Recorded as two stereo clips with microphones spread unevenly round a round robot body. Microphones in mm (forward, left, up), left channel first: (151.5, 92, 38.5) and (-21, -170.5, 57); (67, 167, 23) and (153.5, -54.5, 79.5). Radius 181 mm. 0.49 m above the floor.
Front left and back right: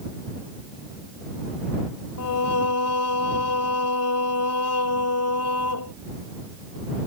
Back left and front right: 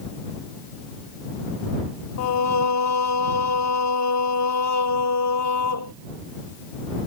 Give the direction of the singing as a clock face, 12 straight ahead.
8 o'clock.